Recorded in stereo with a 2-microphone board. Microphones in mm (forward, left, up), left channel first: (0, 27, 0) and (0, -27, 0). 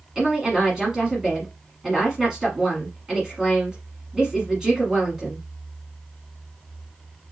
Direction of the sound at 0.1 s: 15° right (ahead or behind).